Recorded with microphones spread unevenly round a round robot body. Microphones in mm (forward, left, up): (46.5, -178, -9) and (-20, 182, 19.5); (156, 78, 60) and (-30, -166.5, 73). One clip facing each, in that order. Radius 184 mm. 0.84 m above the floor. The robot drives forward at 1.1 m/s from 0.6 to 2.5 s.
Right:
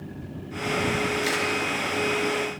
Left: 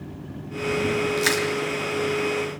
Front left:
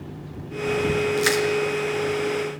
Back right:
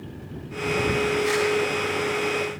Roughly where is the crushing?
Ahead left.